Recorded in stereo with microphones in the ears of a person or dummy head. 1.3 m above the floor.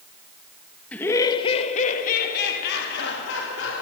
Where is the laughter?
5° left (ahead or behind), 1.2 m; by 3.8 s 75° left (ahead or behind), 3 m.